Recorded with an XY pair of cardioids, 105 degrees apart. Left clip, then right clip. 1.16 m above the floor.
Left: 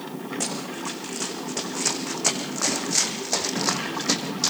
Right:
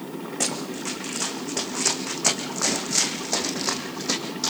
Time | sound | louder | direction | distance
0.4 | running footsteps | right 3 dB | 25° right | 5 m